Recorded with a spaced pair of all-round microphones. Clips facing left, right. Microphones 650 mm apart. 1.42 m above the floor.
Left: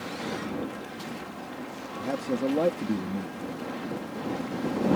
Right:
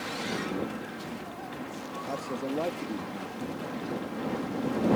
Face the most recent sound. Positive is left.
turn(degrees=85)